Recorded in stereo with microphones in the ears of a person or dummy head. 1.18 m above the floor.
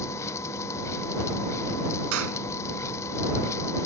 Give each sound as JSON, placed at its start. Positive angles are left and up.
{"t": 0.0, "sound": "a machine running", "side_deg": 15}
{"t": 2.1, "sound": "a clap", "side_deg": -80}